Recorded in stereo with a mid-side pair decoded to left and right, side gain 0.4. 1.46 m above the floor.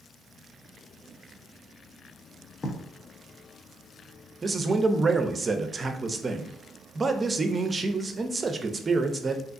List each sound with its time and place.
2.6 s writing: 40° left, 0.8 m
4.4 s a man speaking: 35° right, 0.5 m